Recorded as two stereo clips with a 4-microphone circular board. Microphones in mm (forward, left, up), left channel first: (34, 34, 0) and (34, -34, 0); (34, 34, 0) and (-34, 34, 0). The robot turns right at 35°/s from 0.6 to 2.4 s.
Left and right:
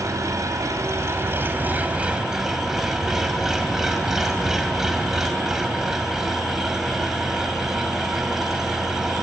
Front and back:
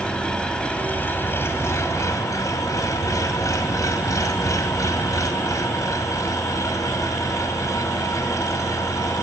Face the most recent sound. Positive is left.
turn(degrees=-5)